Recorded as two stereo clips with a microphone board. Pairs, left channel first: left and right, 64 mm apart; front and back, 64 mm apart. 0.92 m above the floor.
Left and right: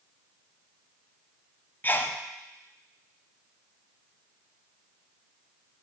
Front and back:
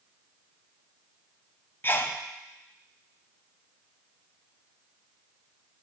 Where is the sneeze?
45° left, 0.6 m.